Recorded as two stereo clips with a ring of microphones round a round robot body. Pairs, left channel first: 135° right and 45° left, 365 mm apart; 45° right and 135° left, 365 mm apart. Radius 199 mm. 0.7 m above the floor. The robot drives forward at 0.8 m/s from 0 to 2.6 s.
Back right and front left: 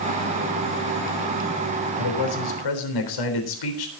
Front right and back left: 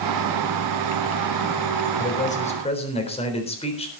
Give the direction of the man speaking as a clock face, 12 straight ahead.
4 o'clock.